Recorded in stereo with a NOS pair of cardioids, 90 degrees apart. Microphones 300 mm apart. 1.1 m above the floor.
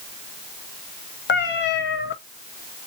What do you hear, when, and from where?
1.3 s a cat meowing: 40° left, 1.0 m